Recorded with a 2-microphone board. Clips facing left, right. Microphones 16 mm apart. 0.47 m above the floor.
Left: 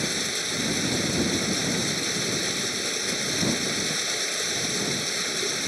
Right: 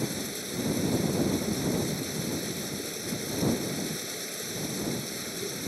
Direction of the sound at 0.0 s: 35° left (ahead or behind).